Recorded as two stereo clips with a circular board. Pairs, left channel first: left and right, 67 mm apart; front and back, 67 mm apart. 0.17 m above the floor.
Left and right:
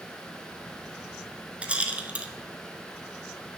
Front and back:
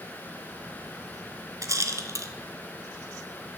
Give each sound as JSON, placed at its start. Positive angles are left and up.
{"t": 1.6, "sound": "a rattle", "azimuth_deg": -160, "distance_m": 0.6}